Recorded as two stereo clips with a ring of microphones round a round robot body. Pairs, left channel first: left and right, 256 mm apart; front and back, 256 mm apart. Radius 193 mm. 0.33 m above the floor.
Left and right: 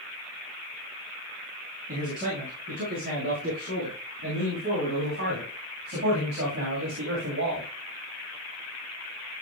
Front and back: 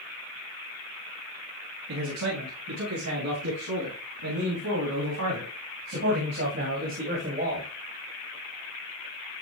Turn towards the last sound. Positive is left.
turn(degrees=-120)